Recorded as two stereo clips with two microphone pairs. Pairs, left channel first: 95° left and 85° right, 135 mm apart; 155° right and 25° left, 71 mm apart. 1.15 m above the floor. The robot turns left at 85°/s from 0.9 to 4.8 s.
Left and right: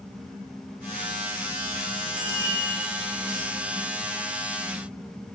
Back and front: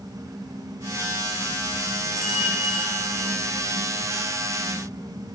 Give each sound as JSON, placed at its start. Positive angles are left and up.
{"t": 2.2, "sound": "a bicycle bell", "azimuth_deg": 55, "distance_m": 5.0}